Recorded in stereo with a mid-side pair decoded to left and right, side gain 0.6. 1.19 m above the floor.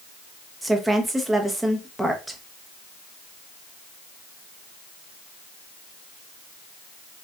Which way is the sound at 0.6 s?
5° right.